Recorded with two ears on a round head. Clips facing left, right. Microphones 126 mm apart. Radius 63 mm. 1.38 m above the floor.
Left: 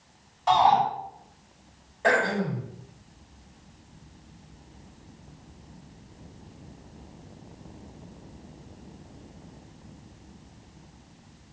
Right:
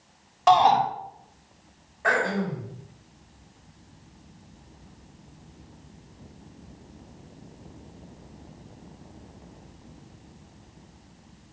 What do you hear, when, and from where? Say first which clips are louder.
0.5 s a shout: right 2 dB; 75° right (ahead or behind), 4 m
2.0 s throat clearing: left 1 dB; 35° left (ahead or behind), 5.5 m